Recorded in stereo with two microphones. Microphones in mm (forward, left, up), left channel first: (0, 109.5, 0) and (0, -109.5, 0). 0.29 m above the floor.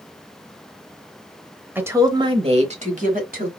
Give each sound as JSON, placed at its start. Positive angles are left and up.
{"t": 1.8, "sound": "a woman speaking", "side_deg": -10, "distance_m": 1.0}